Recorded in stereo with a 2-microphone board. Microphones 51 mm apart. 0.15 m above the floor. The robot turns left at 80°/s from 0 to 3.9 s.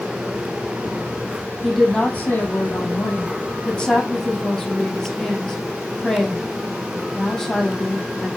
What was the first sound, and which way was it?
A woman speaking, 175° right.